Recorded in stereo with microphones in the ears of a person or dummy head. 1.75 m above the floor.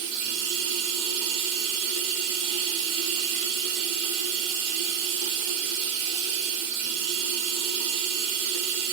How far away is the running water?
About 3.5 m.